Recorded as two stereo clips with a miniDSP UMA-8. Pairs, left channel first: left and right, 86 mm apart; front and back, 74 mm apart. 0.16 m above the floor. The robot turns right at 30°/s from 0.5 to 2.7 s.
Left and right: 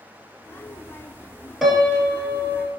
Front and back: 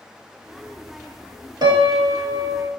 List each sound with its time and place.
1.6 s a piano: 175° left, 0.7 m; by 2.7 s 150° right, 0.7 m